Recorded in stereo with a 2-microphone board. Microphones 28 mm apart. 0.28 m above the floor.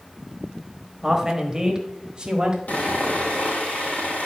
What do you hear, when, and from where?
1.0 s a man speaking: 10° right (ahead or behind), 1.3 m; by 2.6 s 25° right (ahead or behind), 1.4 m
2.7 s sawing: 65° left (ahead or behind), 2.5 m